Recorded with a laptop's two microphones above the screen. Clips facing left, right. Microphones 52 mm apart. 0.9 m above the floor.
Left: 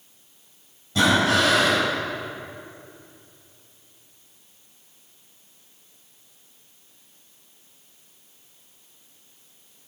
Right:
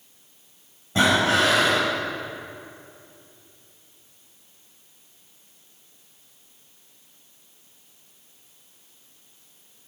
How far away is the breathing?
About 6 m.